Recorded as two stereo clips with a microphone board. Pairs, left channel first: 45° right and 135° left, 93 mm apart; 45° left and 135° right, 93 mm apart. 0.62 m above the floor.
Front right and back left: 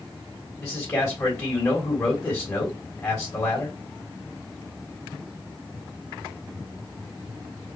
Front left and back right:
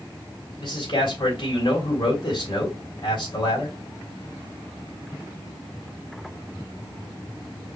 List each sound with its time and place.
0.6 s a man speaking: 15° left, 2.5 m